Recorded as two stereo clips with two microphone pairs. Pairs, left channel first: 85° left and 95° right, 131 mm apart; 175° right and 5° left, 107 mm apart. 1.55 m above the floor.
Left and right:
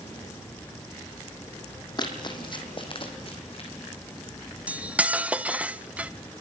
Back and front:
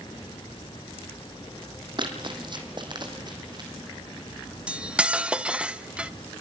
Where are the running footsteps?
35° left, 2.5 m; by 3.7 s 50° left, 3.5 m.